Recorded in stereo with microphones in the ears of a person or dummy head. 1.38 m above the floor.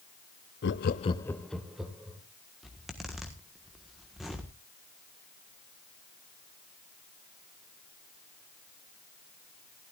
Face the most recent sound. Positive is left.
turn(degrees=0)  # may be behind; listen again after turning